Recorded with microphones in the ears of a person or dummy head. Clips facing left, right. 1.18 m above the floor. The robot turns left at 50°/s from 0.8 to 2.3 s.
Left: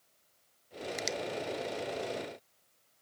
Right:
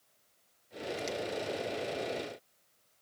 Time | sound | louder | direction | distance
1.0 | a finger snap | even | 75° left (ahead or behind) | 1.1 m